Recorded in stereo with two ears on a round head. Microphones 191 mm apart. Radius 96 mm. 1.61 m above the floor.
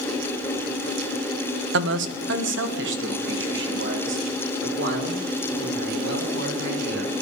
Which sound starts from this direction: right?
A man speaking, at 1.7 s.